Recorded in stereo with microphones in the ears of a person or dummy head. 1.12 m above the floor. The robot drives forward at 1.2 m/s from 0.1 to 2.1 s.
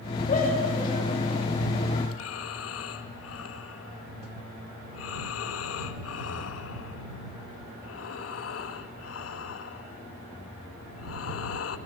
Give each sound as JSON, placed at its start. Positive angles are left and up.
{"t": 0.3, "sound": "a shout", "side_deg": 40, "distance_m": 5.5}
{"t": 2.1, "sound": "breathing", "side_deg": 85, "distance_m": 1.3}